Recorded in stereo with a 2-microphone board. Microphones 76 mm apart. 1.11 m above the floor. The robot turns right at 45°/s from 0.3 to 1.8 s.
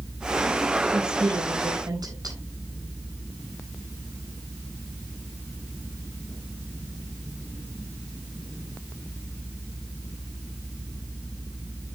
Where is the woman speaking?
75° right (ahead or behind), 6 m; by 2.4 s 65° right (ahead or behind), 6 m.